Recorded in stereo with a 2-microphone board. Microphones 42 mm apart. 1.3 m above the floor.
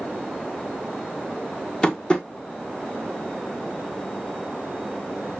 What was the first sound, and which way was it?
Tapping, 20° left (ahead or behind).